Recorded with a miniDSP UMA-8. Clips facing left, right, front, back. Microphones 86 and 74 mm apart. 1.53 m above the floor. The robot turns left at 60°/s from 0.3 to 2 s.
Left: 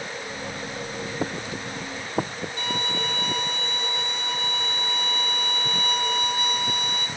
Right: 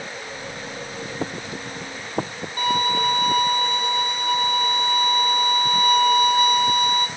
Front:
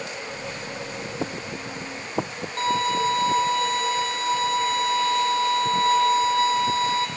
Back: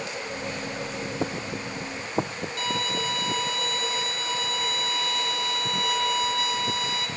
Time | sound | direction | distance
2.6 | a violin | 55° right | 1.0 m